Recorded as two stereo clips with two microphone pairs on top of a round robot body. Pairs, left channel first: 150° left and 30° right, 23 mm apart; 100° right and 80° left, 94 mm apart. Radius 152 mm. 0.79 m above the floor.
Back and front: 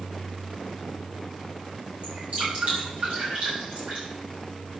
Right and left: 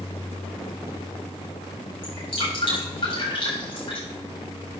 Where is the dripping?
75° right, 7 m.